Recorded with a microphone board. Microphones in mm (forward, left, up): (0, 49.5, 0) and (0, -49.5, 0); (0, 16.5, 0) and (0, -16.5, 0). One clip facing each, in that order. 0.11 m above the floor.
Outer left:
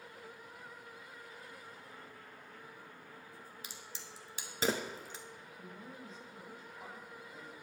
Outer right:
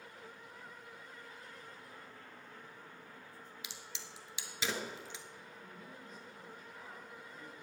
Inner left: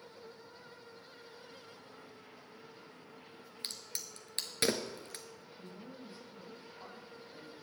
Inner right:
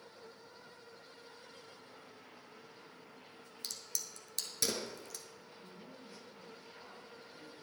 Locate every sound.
3.6 s a crack: 45° left (ahead or behind), 1.1 m
5.6 s a man speaking: 35° left (ahead or behind), 4 m